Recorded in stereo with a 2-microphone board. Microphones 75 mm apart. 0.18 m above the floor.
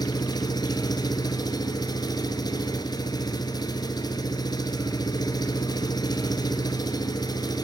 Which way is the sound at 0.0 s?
65° left (ahead or behind).